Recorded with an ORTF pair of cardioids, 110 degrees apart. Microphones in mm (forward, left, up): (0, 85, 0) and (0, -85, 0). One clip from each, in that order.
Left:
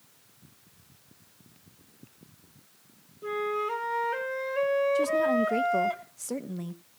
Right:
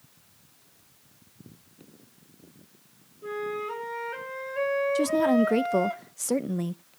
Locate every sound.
3.2 s a flute: 20° left, 3 m
5.0 s a woman speaking: 35° right, 1.0 m